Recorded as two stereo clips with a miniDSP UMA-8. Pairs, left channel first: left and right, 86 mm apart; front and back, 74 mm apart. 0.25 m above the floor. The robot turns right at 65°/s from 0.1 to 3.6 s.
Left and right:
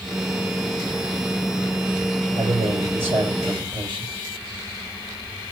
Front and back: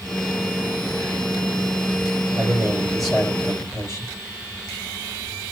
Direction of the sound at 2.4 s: 135° right.